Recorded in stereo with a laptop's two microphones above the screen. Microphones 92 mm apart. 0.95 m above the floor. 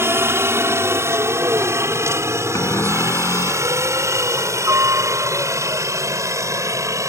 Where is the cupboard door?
35° left (ahead or behind).